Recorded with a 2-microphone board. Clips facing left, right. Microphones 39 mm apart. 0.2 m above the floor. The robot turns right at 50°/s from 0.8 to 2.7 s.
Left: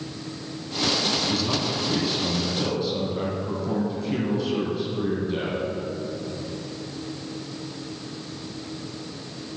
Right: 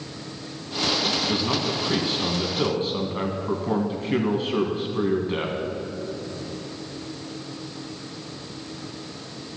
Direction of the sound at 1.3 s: 150° right.